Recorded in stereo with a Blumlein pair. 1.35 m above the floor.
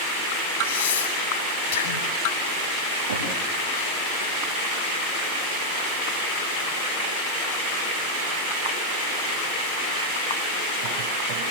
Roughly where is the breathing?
Ahead left.